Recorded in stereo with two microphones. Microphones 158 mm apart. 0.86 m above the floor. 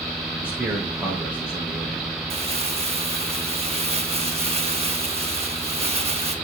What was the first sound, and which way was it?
A man speaking, 10° right (ahead or behind).